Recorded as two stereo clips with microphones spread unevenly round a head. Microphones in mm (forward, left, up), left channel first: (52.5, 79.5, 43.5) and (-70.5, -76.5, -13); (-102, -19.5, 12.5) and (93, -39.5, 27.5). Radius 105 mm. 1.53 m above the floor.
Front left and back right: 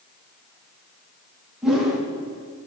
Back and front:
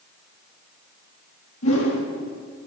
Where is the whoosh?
145° left, 2.5 m.